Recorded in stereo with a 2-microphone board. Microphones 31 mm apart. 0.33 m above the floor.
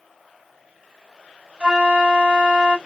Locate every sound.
1.6 s a flute: 30° right (ahead or behind), 1.6 m